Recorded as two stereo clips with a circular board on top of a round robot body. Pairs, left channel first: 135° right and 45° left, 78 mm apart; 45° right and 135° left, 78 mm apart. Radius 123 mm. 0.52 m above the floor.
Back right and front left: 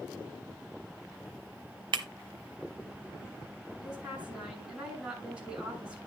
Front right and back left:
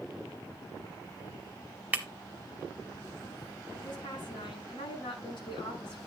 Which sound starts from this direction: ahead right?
A woman speaking, at 3.8 s.